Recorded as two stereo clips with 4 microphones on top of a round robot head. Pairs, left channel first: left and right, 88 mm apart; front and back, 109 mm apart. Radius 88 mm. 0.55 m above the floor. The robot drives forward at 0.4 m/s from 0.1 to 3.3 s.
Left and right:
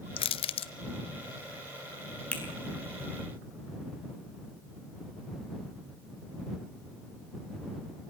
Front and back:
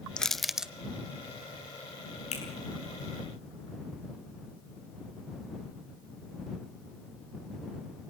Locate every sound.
0.2 s crushing: 85° left, 0.8 m; by 0.7 s 100° left, 0.8 m
2.3 s a finger snap: 15° left, 8 m